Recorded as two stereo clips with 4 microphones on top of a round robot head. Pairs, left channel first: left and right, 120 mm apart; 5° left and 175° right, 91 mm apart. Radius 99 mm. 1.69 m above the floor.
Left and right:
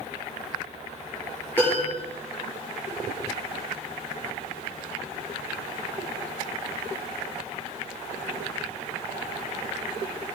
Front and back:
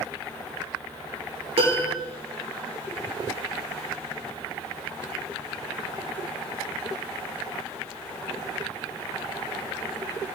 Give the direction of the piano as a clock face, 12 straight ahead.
6 o'clock.